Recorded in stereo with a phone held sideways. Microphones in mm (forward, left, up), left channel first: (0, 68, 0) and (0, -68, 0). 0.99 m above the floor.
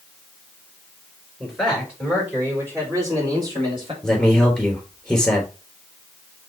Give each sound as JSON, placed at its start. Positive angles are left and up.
{"t": 1.4, "sound": "a man speaking", "side_deg": 0, "distance_m": 4.5}
{"t": 4.0, "sound": "a man speaking", "side_deg": 0, "distance_m": 3.5}